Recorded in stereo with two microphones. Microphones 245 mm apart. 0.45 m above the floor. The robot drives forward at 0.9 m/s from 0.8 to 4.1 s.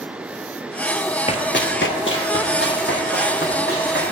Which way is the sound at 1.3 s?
25° left (ahead or behind).